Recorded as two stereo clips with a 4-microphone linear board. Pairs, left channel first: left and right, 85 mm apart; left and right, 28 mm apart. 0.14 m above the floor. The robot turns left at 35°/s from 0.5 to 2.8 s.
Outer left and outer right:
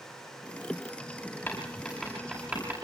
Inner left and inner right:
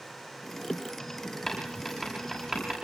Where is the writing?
15° left (ahead or behind), 9 m; by 2.7 s 25° right (ahead or behind), 9 m.